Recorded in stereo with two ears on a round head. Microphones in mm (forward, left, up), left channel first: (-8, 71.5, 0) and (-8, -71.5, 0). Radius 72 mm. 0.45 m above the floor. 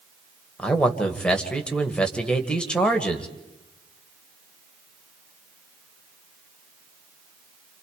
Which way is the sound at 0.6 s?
5° left (ahead or behind).